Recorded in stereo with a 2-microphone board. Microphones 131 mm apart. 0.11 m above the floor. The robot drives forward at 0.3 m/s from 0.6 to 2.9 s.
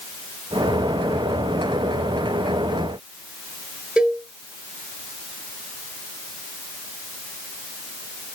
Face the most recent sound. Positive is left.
turn(degrees=-10)  # may be behind; listen again after turning